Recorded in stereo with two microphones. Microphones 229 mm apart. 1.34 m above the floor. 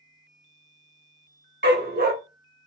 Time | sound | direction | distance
1.6 | a dog barking | 45° right (ahead or behind) | 1.1 m